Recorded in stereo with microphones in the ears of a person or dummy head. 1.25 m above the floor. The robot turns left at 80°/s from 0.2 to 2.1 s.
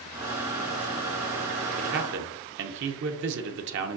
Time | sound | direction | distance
1.8 | a man speaking | 50° right (ahead or behind) | 0.7 m